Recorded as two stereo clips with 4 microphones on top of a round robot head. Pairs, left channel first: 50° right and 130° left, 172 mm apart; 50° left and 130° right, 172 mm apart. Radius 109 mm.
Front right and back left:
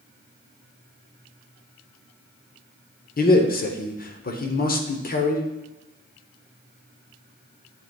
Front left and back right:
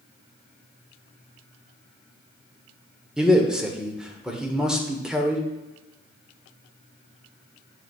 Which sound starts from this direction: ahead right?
A man speaking, at 3.2 s.